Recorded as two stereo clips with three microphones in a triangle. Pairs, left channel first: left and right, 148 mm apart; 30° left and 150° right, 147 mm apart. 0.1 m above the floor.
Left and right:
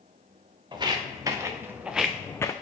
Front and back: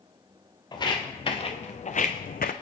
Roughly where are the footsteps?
Ahead right.